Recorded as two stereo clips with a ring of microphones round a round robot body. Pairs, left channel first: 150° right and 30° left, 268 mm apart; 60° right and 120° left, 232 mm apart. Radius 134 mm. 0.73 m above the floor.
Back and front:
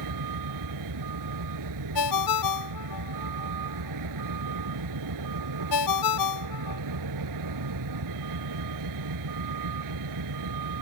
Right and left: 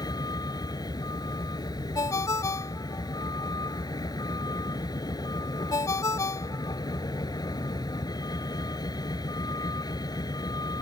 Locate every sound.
0.0 s a vehicle: 15° left
1.9 s a ringtone: 140° right